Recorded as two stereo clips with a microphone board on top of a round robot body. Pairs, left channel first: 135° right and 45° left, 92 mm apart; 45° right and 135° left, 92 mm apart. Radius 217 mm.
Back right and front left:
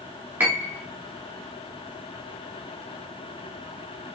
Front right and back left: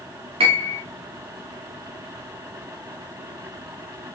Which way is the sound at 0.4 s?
115° left.